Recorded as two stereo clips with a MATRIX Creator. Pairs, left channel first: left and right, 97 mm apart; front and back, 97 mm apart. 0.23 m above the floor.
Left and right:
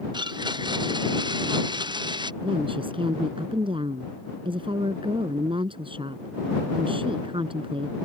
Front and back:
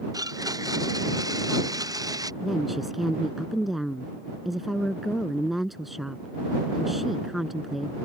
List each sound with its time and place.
0.1 s a blender: 130° right
2.4 s a woman speaking: 90° right